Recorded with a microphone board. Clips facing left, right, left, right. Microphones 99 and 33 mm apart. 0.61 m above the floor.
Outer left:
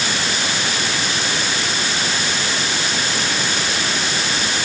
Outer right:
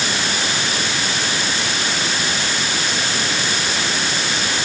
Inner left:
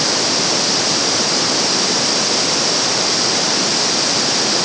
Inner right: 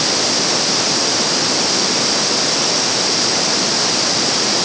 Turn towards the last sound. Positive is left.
No sound to turn to.